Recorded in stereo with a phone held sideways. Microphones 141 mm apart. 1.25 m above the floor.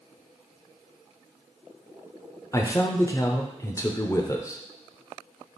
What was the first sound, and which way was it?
A man speaking, 25° left (ahead or behind).